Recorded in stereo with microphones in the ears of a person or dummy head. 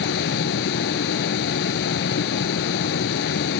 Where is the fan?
60° left (ahead or behind).